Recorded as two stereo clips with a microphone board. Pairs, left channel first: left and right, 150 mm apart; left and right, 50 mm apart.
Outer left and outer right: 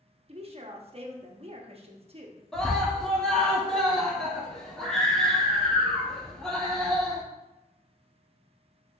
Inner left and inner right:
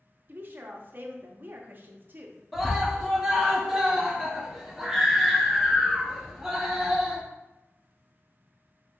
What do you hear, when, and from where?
0.3 s a woman speaking: 40° right (ahead or behind), 0.7 m
2.5 s a scream: 5° left (ahead or behind), 1.0 m